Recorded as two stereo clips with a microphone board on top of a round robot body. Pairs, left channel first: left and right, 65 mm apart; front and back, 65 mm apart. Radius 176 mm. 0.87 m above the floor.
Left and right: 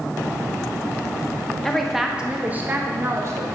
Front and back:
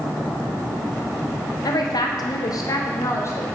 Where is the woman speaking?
5° left, 1.1 m; by 3.5 s 50° right, 1.4 m.